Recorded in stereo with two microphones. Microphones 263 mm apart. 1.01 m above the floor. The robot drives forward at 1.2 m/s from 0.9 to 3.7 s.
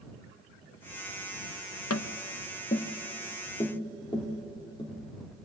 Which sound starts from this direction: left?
Tapping, at 1.9 s.